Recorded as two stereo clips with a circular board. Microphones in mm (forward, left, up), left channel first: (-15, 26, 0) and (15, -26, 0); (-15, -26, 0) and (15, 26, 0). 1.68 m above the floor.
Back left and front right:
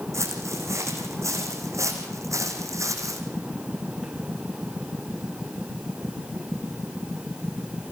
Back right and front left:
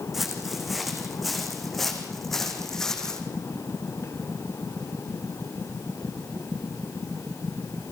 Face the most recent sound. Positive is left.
turn(degrees=-40)